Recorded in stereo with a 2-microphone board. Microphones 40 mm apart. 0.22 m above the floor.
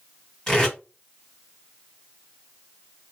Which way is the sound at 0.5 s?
15° left (ahead or behind).